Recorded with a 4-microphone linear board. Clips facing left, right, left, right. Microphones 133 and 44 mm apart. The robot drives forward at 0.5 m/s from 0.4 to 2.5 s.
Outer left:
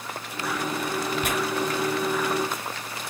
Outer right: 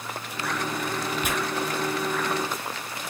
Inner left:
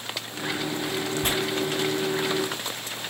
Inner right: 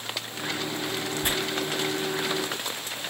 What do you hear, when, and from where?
1.2 s tearing paper: 75° left (ahead or behind), 6 m